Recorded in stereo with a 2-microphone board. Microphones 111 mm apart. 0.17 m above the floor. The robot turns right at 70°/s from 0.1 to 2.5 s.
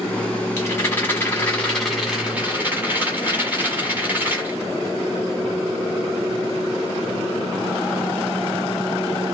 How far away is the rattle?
About 1.7 m.